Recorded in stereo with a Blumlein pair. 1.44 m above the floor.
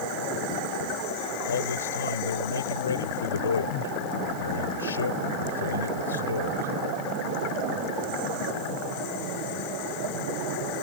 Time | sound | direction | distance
1.5 | a man speaking | 70° left | ?